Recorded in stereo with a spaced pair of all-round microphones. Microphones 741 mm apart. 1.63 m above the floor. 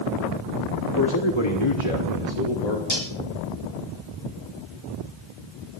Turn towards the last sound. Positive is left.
turn(degrees=50)  # may be behind; listen again after turning